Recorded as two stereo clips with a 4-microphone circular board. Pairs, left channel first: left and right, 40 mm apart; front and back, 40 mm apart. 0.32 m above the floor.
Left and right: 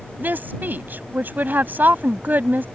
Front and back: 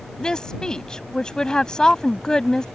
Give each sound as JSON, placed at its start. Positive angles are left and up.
{"t": 0.2, "sound": "a woman speaking", "azimuth_deg": -70}